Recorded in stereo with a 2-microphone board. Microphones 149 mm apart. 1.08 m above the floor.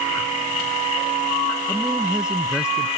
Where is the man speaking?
5° right (ahead or behind).